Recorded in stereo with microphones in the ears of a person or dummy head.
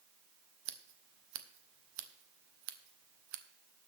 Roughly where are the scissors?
Right.